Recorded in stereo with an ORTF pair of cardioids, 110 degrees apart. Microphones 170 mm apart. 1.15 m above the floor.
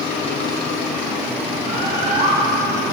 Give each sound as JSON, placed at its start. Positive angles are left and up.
{"t": 1.7, "sound": "a bird", "azimuth_deg": -40, "distance_m": 1.6}